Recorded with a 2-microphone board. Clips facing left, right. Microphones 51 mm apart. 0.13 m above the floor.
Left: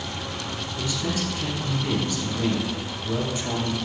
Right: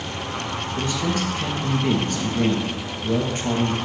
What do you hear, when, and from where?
0.8 s a man speaking: 40° right (ahead or behind), 1.9 m